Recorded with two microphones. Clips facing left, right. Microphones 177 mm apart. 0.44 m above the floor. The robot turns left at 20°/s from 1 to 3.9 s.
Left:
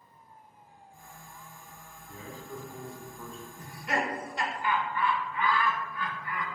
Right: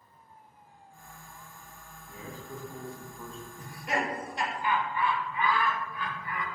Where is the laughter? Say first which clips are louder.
Even; 15° right (ahead or behind), 1.1 m; by 6.5 s 20° right (ahead or behind), 1.1 m.